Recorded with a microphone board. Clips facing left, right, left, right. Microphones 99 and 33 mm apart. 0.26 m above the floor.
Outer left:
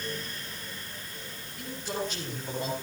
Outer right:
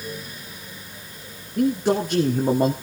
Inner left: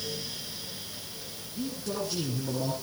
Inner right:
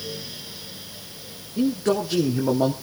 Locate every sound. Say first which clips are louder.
1.6 s a man speaking: outer right 15 dB, inner right 12 dB; 70° right (ahead or behind), 3.5 m; by 2.7 s 55° right (ahead or behind), 3 m